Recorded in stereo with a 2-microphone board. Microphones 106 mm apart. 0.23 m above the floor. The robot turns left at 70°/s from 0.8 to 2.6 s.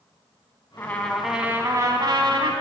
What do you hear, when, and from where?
0.8 s a trumpet: 30° left, 1.2 m; by 2.5 s 90° right, 1.2 m